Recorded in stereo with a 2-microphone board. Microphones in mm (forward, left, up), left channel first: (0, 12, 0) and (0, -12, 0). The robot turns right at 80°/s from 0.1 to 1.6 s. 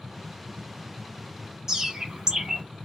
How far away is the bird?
About 1.2 m.